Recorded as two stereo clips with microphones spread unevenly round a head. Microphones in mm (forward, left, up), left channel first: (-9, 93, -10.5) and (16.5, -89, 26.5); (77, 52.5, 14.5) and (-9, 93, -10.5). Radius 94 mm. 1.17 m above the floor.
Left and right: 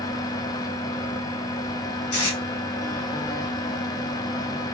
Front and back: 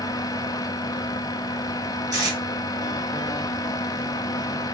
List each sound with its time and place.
0.0 s a fan: 35° left, 0.7 m
2.1 s tape being pulled: 100° left, 3 m